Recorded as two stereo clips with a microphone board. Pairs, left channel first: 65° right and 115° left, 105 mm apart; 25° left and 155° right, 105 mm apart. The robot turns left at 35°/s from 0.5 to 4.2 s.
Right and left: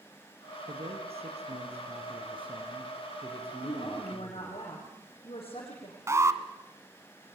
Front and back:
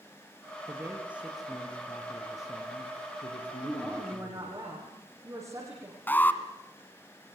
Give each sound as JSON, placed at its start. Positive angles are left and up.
{"t": 0.7, "sound": "a man speaking", "azimuth_deg": 140, "distance_m": 3.5}
{"t": 3.6, "sound": "a woman speaking", "azimuth_deg": -80, "distance_m": 7.0}
{"t": 6.1, "sound": "an alarm", "azimuth_deg": 80, "distance_m": 1.6}